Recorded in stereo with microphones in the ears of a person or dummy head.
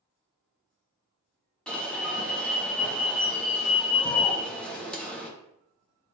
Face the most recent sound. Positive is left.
turn(degrees=5)  # may be behind; listen again after turning